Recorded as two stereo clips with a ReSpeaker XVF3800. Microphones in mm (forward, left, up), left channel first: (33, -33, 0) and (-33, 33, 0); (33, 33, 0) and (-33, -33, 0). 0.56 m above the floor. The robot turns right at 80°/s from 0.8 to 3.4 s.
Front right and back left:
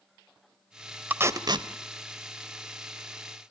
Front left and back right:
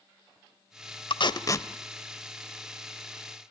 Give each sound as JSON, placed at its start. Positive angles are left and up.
{"t": 1.1, "sound": "tape being pulled", "azimuth_deg": 65, "distance_m": 0.9}